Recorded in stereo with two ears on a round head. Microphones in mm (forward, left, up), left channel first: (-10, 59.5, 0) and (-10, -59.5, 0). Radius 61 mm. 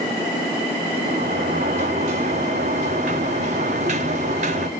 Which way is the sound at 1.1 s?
55° right (ahead or behind).